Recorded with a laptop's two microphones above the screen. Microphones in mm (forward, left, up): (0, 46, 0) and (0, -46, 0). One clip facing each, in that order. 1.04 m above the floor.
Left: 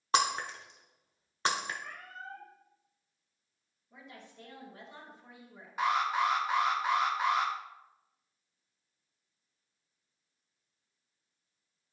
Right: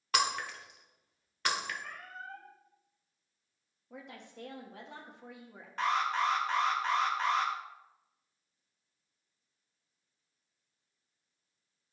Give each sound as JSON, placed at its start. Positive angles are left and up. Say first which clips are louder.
{"t": 0.1, "sound": "breaking glass", "louder": "left 3 dB", "side_deg": 30, "distance_m": 0.9}
{"t": 1.8, "sound": "a cat meowing", "louder": "even", "side_deg": 30, "distance_m": 3.0}
{"t": 3.9, "sound": "a woman speaking", "louder": "right 3 dB", "side_deg": -80, "distance_m": 1.4}
{"t": 5.8, "sound": "an alarm", "louder": "left 1 dB", "side_deg": 10, "distance_m": 0.9}